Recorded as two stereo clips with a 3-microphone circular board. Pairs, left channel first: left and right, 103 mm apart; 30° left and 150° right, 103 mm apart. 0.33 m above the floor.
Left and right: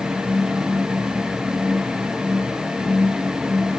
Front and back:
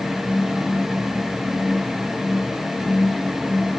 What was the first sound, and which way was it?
Only background noise.